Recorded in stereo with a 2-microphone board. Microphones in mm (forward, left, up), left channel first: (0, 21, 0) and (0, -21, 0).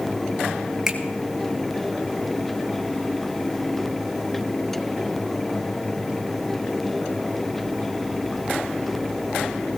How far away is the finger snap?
About 1.4 m.